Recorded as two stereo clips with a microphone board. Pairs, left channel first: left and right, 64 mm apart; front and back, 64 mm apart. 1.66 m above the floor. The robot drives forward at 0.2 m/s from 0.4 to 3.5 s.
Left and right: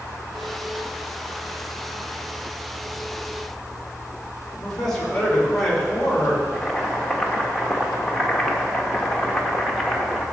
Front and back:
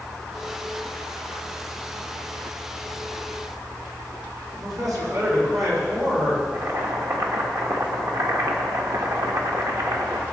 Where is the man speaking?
170° left, 4.5 m.